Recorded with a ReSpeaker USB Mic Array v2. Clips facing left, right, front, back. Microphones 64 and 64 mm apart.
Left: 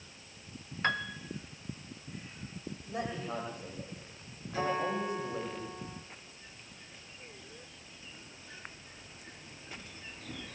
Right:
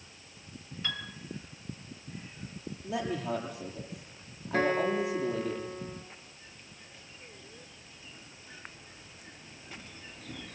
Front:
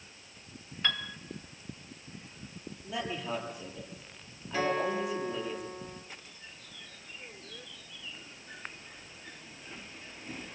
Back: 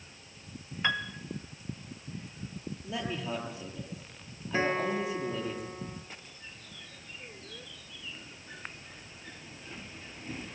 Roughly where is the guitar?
Behind right.